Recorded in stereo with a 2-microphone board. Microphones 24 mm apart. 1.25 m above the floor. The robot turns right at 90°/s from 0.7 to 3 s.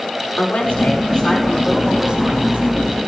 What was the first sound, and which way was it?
A woman speaking, 95° left.